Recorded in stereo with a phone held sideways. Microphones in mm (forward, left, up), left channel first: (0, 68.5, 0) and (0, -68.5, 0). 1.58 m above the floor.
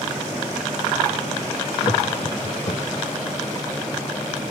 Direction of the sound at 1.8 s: 80° left.